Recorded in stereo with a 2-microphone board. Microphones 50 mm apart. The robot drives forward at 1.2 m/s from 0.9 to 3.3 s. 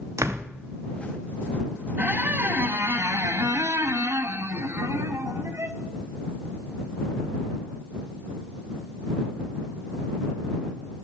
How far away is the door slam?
About 1.5 m.